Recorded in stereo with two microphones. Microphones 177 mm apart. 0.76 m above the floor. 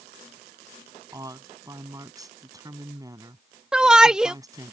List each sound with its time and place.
1.1 s a woman speaking: 20° right (ahead or behind)
3.7 s a shout: 5° right (ahead or behind)